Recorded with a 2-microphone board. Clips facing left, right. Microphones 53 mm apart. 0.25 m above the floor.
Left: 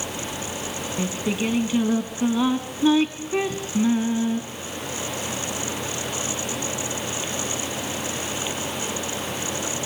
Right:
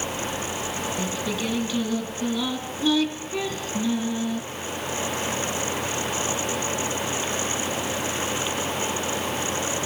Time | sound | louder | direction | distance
1.0 | singing | left 6 dB | 35° left (ahead or behind) | 2 m